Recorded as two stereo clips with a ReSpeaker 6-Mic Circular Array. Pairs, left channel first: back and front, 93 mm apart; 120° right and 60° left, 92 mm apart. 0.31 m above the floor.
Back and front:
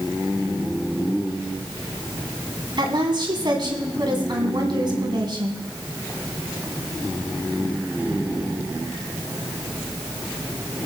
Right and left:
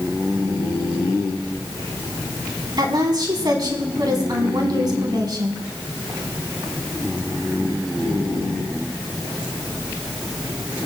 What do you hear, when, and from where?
2.8 s a woman speaking: 25° left, 2 m